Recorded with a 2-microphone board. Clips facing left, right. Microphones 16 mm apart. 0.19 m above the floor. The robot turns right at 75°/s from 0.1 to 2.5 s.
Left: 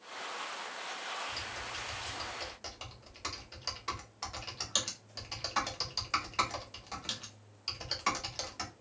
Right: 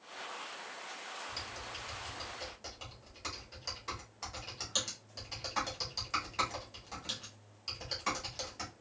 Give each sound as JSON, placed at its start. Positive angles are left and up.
{"t": 1.3, "sound": "typing on a keyboard", "side_deg": -5, "distance_m": 0.9}